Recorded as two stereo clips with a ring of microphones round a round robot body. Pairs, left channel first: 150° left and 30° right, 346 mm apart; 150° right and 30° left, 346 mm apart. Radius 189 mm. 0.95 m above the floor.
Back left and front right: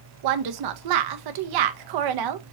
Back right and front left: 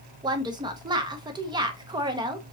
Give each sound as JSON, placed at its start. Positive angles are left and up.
{"t": 0.2, "sound": "a woman speaking", "azimuth_deg": -50, "distance_m": 0.7}